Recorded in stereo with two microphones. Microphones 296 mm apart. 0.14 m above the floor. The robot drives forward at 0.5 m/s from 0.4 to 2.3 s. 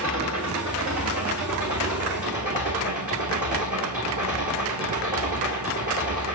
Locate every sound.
0.0 s an engine running: 65° right (ahead or behind), 3 m; by 6.4 s 80° right, 3 m